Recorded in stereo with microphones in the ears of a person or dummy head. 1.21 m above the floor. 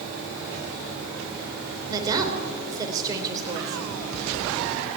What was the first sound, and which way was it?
A woman speaking, 20° right (ahead or behind).